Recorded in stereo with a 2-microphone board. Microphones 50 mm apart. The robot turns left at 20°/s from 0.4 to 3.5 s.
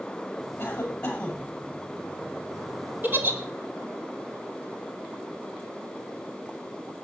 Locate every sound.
0.6 s a cough: 35° left (ahead or behind), 7.5 m; by 1.5 s 15° left (ahead or behind), 7.5 m
3.0 s a giggle: 40° right (ahead or behind), 2.5 m; by 3.4 s 45° right (ahead or behind), 2.5 m